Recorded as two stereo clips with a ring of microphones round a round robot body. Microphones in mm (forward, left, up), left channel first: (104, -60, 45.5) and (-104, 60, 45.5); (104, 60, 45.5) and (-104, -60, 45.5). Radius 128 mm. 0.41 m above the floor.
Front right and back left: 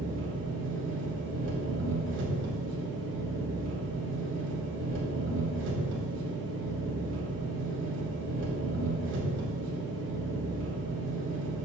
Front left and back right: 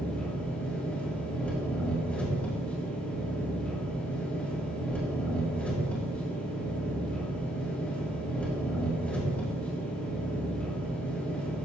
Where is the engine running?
115° left, 3 m.